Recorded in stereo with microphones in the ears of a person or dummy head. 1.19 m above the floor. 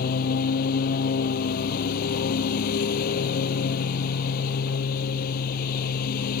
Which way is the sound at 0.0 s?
50° left (ahead or behind).